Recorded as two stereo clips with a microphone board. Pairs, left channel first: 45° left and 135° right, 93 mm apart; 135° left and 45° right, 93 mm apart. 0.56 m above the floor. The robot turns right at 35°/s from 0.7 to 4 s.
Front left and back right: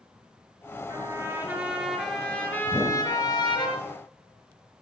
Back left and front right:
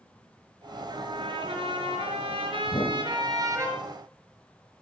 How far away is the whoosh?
About 2 m.